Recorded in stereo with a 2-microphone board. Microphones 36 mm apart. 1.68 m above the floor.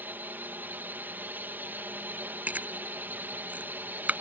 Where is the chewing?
45° right (ahead or behind).